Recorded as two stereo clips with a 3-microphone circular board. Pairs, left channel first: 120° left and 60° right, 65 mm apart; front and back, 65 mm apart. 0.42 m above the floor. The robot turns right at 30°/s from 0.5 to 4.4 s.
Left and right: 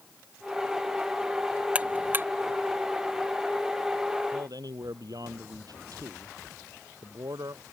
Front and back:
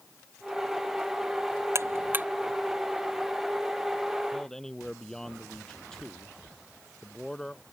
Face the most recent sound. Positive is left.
turn(degrees=-80)